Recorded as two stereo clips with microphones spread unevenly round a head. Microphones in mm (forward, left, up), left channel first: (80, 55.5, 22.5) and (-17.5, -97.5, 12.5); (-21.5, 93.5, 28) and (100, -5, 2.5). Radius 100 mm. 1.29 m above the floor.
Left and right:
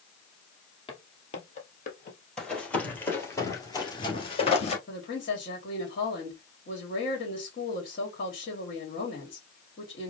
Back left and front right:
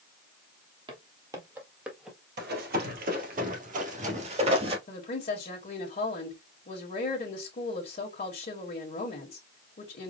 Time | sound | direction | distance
0.9 | footsteps | 20° left | 1.6 m
2.4 | running footsteps | 25° right | 2.5 m
4.9 | a woman speaking | 100° left | 1.6 m